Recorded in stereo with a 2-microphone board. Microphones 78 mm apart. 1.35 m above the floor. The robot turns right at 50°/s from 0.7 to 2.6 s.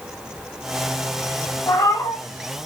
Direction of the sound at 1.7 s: 45° left (ahead or behind).